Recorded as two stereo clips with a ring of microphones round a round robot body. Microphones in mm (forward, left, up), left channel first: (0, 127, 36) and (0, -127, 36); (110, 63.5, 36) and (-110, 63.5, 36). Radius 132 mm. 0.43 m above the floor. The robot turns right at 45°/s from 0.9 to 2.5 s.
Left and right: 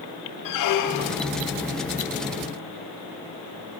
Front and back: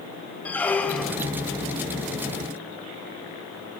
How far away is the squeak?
About 0.6 m.